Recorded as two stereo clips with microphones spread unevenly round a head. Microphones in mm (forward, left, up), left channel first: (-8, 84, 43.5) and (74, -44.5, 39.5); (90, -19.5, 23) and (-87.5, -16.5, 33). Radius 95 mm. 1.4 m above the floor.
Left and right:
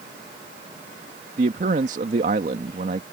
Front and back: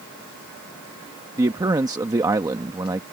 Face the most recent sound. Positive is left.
turn(degrees=-110)